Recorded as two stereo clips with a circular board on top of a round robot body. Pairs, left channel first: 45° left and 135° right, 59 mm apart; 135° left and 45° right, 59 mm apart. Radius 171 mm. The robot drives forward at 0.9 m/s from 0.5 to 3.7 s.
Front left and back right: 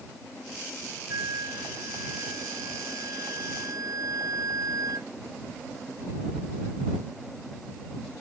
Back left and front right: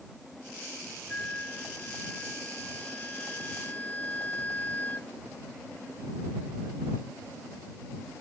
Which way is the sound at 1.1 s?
155° right.